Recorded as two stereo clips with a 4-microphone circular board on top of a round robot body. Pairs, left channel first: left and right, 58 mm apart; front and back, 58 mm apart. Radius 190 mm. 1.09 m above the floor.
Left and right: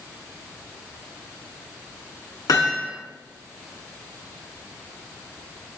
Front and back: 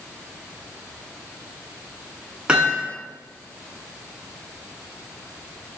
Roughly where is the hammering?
Left.